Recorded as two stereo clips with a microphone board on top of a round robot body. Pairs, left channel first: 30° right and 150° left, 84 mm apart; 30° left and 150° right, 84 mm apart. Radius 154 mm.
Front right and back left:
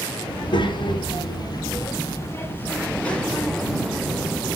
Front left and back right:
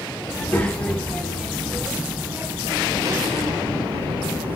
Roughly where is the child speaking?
Ahead right.